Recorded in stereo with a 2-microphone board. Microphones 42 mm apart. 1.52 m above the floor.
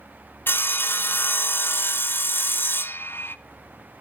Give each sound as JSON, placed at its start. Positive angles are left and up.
{"t": 0.5, "sound": "sawing", "side_deg": 55, "distance_m": 0.6}